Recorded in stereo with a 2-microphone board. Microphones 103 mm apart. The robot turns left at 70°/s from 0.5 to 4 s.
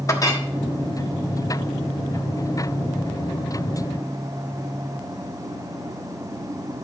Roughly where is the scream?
No scream in this recording.